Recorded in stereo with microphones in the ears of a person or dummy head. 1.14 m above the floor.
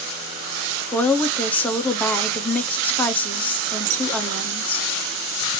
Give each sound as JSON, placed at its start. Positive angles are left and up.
{"t": 0.9, "sound": "a woman speaking", "side_deg": 5, "distance_m": 0.6}